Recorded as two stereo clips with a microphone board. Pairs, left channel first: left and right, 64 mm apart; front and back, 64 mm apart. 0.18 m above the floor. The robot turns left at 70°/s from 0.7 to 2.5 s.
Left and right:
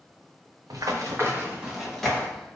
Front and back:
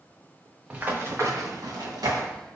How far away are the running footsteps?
About 1.4 m.